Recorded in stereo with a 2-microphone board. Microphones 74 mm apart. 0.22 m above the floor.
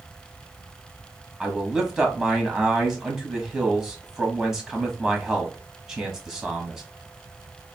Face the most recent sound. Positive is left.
turn(degrees=-10)  # may be behind; listen again after turning